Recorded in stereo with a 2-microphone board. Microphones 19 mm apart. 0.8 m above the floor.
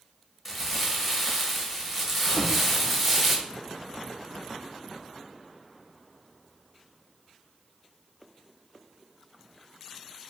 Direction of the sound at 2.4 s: 55° right (ahead or behind).